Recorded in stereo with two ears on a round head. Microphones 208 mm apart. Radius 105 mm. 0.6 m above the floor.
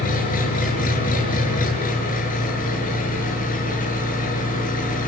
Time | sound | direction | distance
0.0 | an engine running | 40° left (ahead or behind) | 7.5 m